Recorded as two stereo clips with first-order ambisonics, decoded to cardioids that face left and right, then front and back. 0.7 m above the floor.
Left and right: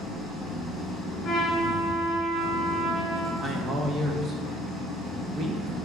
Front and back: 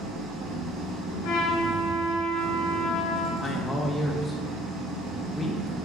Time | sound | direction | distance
0.0 | an engine running | 160° right | 1.7 m
1.2 | a trumpet | 15° left | 1.8 m
3.4 | a man speaking | 70° right | 0.7 m